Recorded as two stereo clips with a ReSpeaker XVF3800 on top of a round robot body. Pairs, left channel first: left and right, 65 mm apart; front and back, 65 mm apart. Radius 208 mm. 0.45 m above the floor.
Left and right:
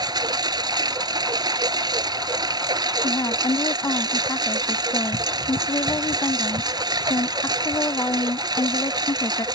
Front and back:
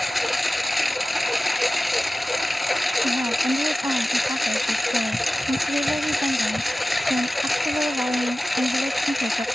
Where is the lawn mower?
90° right.